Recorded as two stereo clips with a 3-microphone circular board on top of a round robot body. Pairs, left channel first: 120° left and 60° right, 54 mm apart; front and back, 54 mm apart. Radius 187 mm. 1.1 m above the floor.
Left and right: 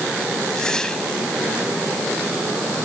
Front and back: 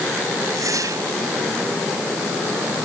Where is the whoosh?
160° right.